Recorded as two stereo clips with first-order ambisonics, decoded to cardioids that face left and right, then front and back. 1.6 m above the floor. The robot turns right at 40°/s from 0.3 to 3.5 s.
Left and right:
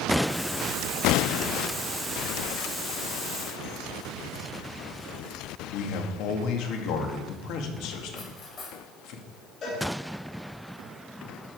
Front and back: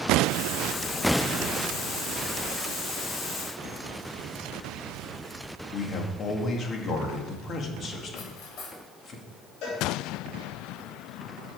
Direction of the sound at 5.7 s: 60° left.